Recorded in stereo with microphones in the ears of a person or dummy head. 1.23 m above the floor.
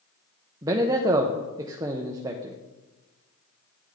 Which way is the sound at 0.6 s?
20° right (ahead or behind).